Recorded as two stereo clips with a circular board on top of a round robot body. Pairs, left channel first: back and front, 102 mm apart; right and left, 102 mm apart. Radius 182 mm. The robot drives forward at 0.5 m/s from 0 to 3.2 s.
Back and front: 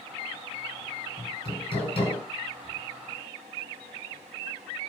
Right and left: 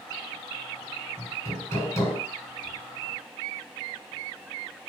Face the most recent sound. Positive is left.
turn(degrees=-155)